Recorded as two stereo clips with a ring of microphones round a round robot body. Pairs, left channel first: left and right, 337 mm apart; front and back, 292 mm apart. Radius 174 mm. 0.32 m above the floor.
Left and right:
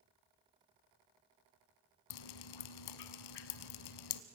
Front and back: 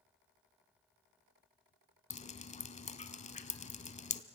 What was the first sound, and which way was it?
Dripping, 70° left.